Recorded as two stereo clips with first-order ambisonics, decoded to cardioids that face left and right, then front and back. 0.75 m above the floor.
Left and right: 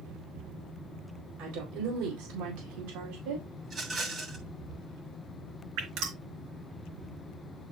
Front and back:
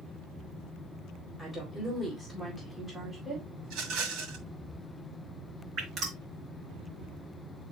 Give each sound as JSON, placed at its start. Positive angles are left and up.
{"t": 1.4, "sound": "a woman speaking", "azimuth_deg": -100, "distance_m": 4.0}
{"t": 3.6, "sound": "a rattle", "azimuth_deg": -155, "distance_m": 3.0}
{"t": 5.8, "sound": "dripping", "azimuth_deg": -120, "distance_m": 3.5}